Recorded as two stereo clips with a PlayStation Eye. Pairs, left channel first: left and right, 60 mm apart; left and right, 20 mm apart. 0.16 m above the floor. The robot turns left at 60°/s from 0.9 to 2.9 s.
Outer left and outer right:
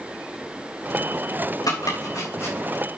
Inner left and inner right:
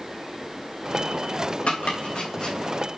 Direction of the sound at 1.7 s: 80° left.